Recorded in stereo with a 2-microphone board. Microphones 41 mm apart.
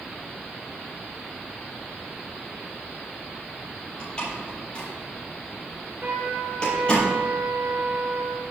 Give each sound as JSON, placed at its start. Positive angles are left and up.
{"t": 4.0, "sound": "a door slam", "side_deg": 25, "distance_m": 6.5}
{"t": 6.0, "sound": "a trumpet", "side_deg": -55, "distance_m": 3.0}